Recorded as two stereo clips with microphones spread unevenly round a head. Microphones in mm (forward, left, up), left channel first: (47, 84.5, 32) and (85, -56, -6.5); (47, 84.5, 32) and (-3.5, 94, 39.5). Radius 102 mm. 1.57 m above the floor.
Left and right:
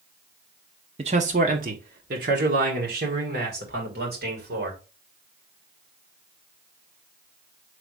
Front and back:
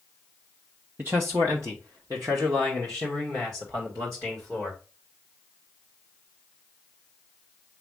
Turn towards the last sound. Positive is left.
turn(degrees=-120)